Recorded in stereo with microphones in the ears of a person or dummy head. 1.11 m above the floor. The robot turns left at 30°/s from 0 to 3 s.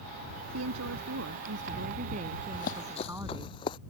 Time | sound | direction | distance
0.5 | a woman speaking | 95° right | ?
2.5 | running footsteps | 50° left (ahead or behind) | ?